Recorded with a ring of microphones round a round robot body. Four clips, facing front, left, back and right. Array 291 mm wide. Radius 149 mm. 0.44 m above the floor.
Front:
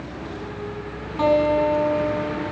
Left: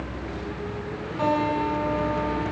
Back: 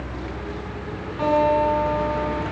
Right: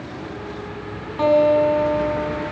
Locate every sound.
1.2 s a guitar: 50° right, 7 m